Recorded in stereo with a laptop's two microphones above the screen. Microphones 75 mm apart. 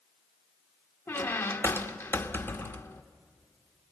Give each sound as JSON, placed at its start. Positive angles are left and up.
{"t": 1.1, "sound": "a squeak", "side_deg": 30, "distance_m": 1.3}